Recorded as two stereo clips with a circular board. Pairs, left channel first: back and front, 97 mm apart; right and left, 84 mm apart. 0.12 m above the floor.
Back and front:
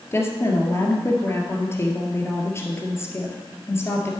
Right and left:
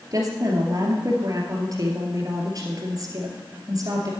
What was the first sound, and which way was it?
A woman speaking, 120° left.